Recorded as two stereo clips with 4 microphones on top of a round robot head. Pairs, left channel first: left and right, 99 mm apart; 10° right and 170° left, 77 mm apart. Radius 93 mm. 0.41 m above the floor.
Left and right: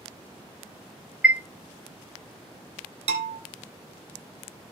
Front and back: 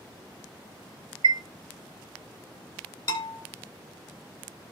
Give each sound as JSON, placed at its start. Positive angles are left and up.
{"t": 1.2, "sound": "a chime", "azimuth_deg": -170, "distance_m": 0.6}
{"t": 3.1, "sound": "a bell", "azimuth_deg": -70, "distance_m": 1.8}